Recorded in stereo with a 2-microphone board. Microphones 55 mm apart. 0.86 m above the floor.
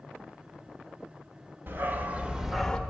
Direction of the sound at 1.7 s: 45° right (ahead or behind).